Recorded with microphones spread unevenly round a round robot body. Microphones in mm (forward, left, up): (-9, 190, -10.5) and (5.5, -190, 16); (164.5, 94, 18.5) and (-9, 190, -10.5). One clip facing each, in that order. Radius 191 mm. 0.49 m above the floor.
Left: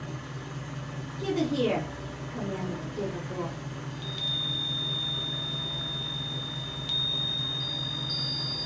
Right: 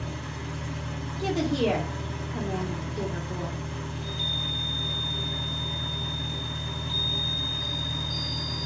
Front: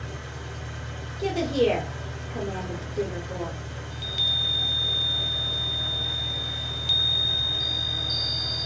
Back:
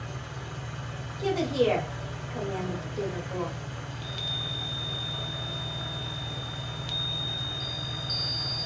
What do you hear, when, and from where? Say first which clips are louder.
0.0 s an engine running: right 3 dB, front 2 dB; 80° right, 1.6 m
1.2 s a woman speaking: right 1 dB, front 2 dB; 15° right, 0.9 m
3.9 s a chime: right 3 dB, front 1 dB; 60° left, 0.6 m